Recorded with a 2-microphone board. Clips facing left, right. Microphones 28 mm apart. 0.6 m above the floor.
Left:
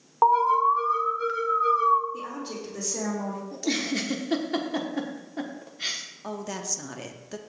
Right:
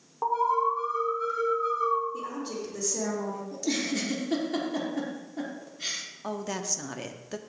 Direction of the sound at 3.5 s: 25° left (ahead or behind).